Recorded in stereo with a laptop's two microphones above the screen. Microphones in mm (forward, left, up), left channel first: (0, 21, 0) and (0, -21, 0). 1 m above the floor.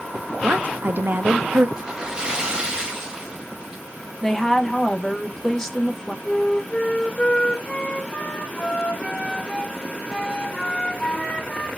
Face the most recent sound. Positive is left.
turn(degrees=25)  # may be behind; listen again after turning